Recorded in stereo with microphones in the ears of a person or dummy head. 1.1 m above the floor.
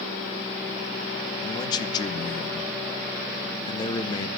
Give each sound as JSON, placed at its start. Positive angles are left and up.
{"t": 1.4, "sound": "a man speaking", "side_deg": 25, "distance_m": 0.9}